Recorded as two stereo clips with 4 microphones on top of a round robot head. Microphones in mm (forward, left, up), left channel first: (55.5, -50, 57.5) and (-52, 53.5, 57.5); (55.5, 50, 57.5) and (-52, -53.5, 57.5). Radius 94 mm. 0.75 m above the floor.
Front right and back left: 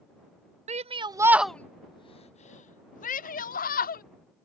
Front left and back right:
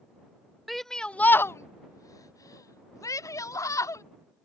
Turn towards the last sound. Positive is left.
turn(degrees=-25)